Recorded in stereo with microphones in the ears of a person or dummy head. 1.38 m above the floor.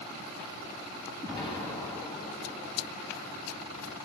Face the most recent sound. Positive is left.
turn(degrees=25)  # may be behind; listen again after turning